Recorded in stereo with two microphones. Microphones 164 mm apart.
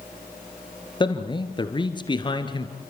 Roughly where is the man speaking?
Left.